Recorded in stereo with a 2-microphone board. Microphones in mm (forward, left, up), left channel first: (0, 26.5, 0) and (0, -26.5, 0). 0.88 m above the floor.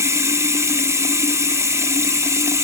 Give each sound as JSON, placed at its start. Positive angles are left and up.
{"t": 0.0, "sound": "running water", "side_deg": -65, "distance_m": 0.8}